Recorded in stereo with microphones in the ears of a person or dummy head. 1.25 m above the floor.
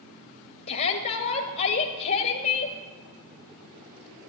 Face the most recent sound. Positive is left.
turn(degrees=50)  # may be behind; listen again after turning